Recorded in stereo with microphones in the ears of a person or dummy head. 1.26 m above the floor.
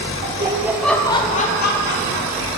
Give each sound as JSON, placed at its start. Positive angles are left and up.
{"t": 0.2, "sound": "laughter", "side_deg": -35, "distance_m": 1.1}